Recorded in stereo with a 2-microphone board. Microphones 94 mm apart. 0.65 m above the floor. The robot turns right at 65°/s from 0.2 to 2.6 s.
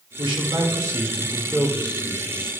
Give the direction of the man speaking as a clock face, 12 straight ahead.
3 o'clock.